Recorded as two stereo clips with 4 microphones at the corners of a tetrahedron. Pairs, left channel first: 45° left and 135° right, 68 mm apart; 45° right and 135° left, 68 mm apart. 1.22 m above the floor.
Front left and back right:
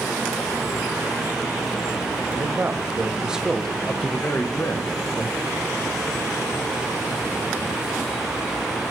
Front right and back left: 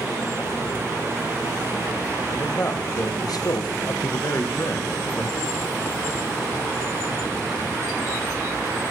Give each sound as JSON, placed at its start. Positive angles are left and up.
{"t": 2.3, "sound": "a man speaking", "azimuth_deg": -95, "distance_m": 1.0}